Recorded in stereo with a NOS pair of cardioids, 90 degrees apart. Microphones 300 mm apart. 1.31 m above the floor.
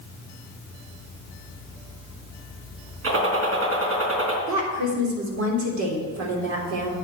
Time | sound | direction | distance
3.0 | a gunshot | 50° right | 3.5 m
4.5 | a woman speaking | 65° right | 3.5 m